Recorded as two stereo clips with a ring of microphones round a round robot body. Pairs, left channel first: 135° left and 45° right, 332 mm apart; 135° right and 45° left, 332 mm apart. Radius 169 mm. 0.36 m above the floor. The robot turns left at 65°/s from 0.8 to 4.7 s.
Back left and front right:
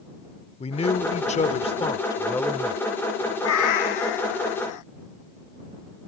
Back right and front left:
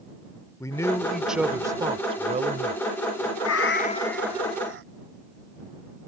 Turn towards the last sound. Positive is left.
turn(degrees=100)